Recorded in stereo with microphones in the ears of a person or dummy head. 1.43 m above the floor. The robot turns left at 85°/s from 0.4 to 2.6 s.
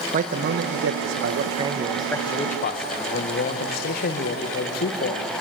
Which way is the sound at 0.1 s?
40° right.